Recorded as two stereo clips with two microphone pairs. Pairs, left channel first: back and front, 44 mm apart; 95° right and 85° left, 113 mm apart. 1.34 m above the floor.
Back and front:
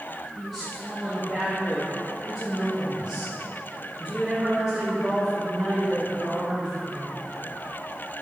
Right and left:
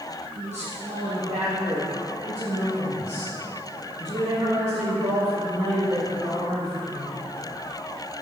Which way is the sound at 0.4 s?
90° left.